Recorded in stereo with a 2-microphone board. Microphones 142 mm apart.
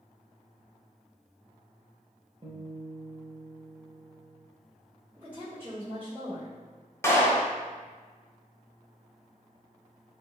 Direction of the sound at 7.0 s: 20° left (ahead or behind).